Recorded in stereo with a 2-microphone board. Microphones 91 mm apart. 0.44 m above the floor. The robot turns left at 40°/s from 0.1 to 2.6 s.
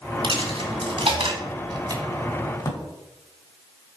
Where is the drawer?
40° left (ahead or behind), 1.4 m.